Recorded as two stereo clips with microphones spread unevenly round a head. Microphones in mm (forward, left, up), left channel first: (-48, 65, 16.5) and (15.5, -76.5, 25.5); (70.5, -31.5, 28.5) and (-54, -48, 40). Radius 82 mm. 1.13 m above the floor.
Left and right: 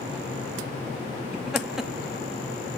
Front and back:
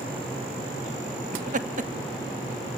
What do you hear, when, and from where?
1.3 s laughter: 150° right, 2.5 m